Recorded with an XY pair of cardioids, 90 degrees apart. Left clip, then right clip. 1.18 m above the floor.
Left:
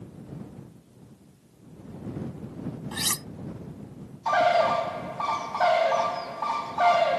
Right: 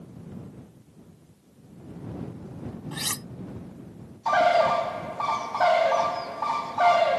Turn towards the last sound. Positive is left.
turn(degrees=-15)